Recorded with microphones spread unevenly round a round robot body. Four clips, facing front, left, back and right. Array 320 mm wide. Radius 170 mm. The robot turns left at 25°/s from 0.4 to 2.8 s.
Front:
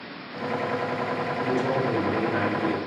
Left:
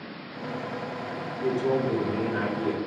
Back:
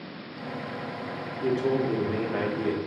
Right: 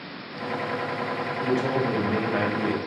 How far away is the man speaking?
About 2 m.